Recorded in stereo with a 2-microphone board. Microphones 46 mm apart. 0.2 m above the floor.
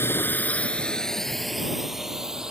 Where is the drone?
55° left (ahead or behind); by 2.5 s 15° right (ahead or behind).